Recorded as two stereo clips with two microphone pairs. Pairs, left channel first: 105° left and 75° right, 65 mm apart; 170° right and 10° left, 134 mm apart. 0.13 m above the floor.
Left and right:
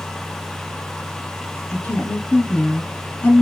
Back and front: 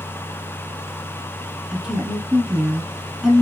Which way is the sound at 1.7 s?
95° left.